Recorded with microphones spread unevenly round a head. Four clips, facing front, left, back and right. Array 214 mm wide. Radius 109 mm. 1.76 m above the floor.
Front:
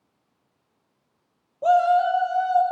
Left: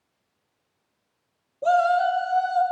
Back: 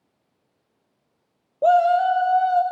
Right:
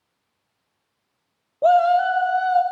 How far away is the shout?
About 1.2 m.